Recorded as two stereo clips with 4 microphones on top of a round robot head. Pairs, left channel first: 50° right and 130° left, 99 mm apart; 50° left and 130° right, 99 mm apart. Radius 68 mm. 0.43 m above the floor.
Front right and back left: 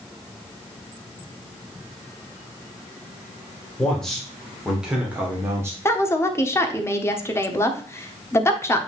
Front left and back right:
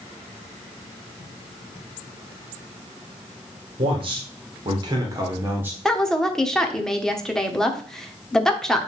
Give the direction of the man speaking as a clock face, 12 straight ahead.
4 o'clock.